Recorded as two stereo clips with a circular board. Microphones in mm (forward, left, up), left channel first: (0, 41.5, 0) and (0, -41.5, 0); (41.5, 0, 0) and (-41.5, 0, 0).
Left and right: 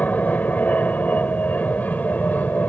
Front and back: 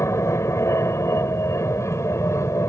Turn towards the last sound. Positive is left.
turn(degrees=30)